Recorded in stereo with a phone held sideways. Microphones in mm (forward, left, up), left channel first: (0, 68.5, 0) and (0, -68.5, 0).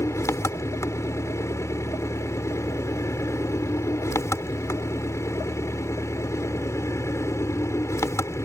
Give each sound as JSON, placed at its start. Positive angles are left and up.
{"t": 0.0, "sound": "an engine running", "side_deg": 20}